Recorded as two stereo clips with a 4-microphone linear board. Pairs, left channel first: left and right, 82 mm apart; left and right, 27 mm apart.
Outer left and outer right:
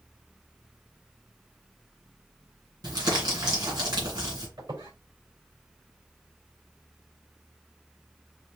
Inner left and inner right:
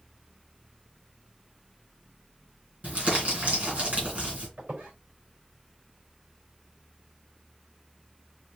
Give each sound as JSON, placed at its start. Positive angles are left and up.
{"t": 2.8, "sound": "crumpling", "side_deg": -60, "distance_m": 2.5}
{"t": 4.6, "sound": "a squeak", "side_deg": -60, "distance_m": 3.5}